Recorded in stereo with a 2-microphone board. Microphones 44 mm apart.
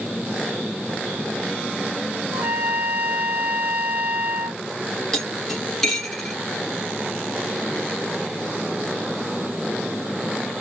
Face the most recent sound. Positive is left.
turn(degrees=5)  # may be behind; listen again after turning